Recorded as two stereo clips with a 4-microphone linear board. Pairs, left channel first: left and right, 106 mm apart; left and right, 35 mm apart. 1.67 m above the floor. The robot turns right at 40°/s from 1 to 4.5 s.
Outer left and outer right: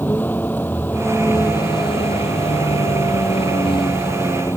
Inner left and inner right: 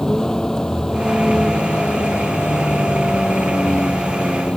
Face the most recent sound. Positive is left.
turn(degrees=155)